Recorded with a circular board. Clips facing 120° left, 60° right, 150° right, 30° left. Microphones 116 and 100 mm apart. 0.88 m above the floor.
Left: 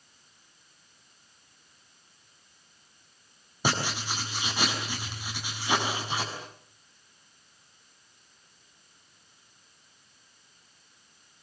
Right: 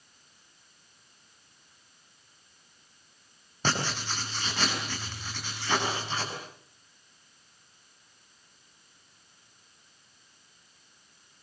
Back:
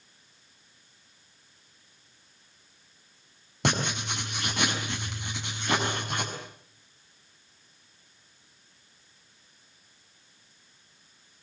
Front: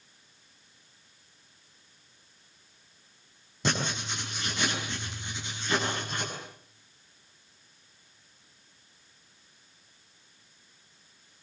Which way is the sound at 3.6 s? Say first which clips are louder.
Left 1 dB, back 2 dB; 165° right.